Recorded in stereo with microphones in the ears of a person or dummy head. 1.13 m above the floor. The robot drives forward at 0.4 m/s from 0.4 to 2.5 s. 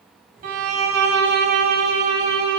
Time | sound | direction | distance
0.4 | a violin | 45° right (ahead or behind) | 0.6 m